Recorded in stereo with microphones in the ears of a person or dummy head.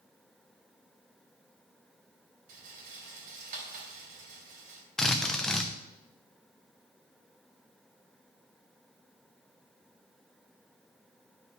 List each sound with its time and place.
2.5 s a rattle: 55° right (ahead or behind), 2.5 m
5.0 s a drill: 10° left (ahead or behind), 0.7 m